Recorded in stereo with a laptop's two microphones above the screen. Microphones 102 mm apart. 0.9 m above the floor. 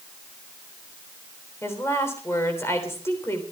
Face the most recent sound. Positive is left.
turn(degrees=25)  # may be behind; listen again after turning